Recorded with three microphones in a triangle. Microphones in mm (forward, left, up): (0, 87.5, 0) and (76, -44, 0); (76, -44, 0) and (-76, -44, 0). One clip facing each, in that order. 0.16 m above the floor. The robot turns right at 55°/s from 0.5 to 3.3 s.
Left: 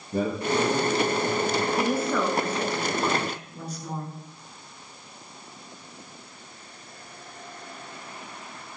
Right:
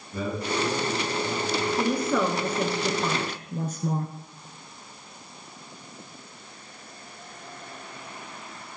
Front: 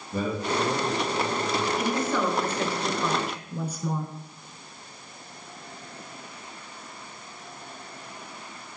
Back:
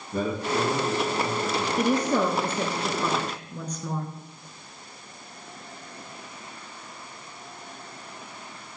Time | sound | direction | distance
0.1 | a man speaking | 85° left | 4.5 m
1.8 | a woman speaking | 165° right | 1.7 m